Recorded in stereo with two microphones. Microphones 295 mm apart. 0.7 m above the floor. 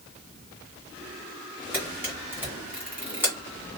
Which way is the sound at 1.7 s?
5° right (ahead or behind).